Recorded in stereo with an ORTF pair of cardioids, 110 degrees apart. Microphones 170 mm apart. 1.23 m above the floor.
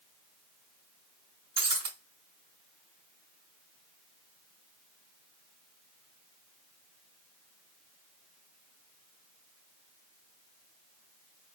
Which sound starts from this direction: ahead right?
Breaking glass, at 1.6 s.